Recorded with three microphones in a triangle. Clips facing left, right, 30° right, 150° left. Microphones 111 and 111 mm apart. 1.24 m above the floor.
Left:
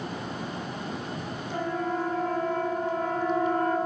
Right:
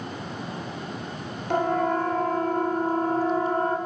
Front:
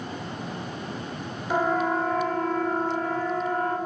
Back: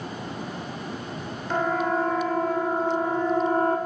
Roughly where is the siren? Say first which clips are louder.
Right 7 dB, even; right.